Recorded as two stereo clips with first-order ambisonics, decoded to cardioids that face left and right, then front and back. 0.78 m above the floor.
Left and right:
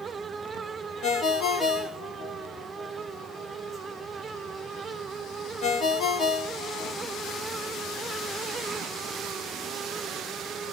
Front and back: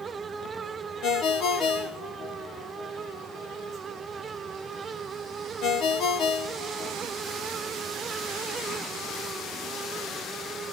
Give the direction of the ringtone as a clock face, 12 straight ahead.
11 o'clock.